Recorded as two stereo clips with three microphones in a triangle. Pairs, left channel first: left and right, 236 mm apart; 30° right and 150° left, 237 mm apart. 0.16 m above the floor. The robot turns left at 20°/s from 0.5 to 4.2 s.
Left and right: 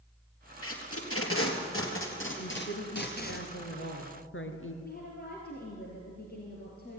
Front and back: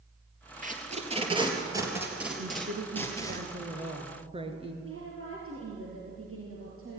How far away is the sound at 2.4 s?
About 2.5 m.